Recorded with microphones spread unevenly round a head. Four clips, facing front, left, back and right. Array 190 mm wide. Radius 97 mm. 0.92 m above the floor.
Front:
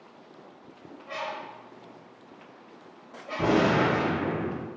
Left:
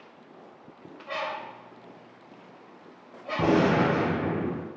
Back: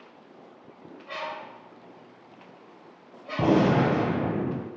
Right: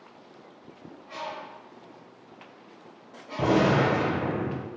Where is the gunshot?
175° left, 3 m.